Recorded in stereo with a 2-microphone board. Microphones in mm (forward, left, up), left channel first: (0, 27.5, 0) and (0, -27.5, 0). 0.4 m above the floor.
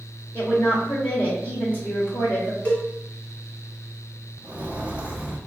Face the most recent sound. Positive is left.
turn(degrees=-20)  # may be behind; listen again after turning